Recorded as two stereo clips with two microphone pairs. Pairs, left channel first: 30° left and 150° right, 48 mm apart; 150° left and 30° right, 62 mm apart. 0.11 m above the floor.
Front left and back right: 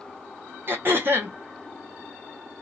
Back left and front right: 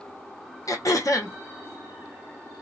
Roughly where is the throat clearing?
Behind.